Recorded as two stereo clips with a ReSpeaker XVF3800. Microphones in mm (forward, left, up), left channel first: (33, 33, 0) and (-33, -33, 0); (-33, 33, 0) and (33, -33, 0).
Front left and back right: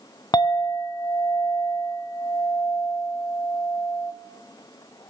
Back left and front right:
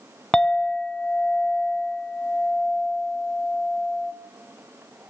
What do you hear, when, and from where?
0.3 s a clink: 60° left, 0.7 m